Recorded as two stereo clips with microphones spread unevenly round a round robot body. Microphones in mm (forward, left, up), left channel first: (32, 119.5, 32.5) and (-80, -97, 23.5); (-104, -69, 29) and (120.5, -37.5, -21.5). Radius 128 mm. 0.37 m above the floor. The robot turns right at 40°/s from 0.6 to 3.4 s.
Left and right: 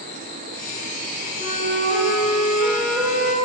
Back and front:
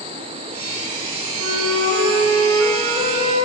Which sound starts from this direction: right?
A flute, at 1.4 s.